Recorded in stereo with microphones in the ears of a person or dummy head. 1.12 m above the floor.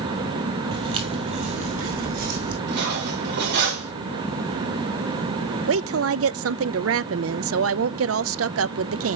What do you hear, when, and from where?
0.7 s footsteps: 35° right (ahead or behind), 2 m; by 2.6 s 50° right (ahead or behind), 3.5 m
2.7 s cutlery clinking: 65° right (ahead or behind), 2.5 m
5.7 s a woman speaking: 70° right (ahead or behind), 0.6 m